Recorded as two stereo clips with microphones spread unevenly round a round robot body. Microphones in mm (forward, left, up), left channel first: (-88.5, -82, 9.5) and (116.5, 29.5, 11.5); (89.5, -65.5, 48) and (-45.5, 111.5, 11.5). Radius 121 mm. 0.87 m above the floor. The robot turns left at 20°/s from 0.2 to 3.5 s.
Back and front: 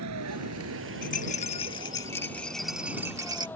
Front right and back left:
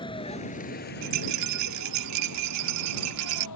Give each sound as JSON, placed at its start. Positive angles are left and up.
{"t": 0.0, "sound": "a vehicle", "azimuth_deg": 15}
{"t": 1.0, "sound": "a rattle", "azimuth_deg": 150}